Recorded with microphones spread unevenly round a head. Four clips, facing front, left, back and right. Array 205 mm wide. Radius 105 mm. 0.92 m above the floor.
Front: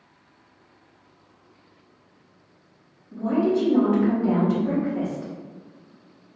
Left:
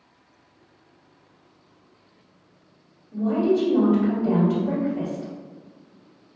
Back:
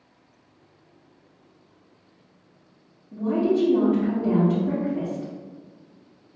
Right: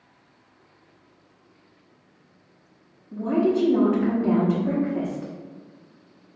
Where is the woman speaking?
85° right, 1.4 m.